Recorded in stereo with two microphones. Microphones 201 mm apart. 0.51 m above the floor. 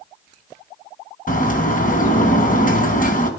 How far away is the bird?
About 3.5 m.